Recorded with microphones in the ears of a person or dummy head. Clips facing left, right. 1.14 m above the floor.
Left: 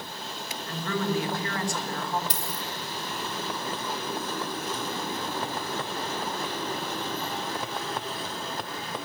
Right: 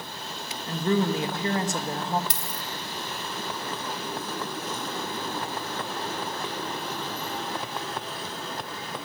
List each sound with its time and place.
0.7 s a woman speaking: 25° right (ahead or behind), 1.6 m
2.3 s a dropped coin: 50° right (ahead or behind), 1.0 m